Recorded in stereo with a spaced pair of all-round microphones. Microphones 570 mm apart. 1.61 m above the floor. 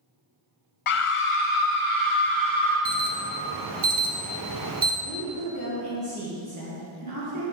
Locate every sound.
0.9 s a scream: 65° left (ahead or behind), 0.5 m; by 2.8 s 60° left (ahead or behind), 2 m
2.9 s an alarm: 40° right (ahead or behind), 0.6 m
5.0 s a woman speaking: 35° right (ahead or behind), 1.5 m